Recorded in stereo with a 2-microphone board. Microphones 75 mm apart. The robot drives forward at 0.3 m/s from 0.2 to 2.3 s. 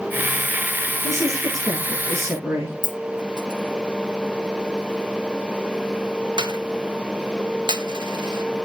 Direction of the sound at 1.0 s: 40° right (ahead or behind).